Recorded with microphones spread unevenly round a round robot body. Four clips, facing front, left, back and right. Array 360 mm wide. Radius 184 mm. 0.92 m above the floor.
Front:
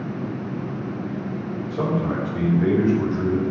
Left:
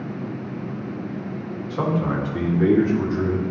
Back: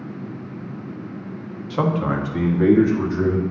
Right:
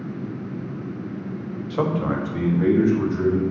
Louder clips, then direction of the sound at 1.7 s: Even, back 3 dB; 165° right.